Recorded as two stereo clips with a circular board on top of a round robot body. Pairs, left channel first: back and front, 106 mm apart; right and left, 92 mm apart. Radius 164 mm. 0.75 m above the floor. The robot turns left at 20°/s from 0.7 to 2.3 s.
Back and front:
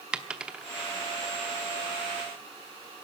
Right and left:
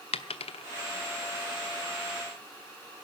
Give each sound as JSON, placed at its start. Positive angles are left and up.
{"t": 0.1, "sound": "a dropped coin", "azimuth_deg": -80, "distance_m": 0.8}